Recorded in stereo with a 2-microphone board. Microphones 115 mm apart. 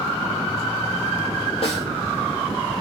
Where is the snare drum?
50° left (ahead or behind), 1.8 m.